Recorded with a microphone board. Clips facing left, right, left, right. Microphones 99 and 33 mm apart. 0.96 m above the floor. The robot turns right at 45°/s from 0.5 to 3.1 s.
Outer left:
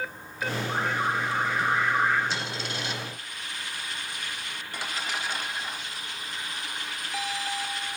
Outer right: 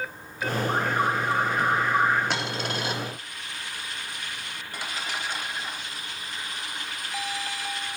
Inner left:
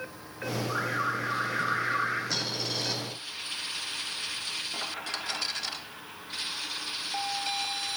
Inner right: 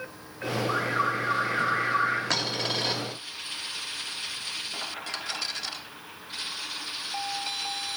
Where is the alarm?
90° right, 8.5 m; by 2.2 s 25° right, 8.5 m.